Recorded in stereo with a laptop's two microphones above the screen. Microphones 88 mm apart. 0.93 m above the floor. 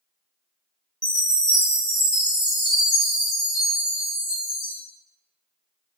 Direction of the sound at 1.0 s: 50° left (ahead or behind).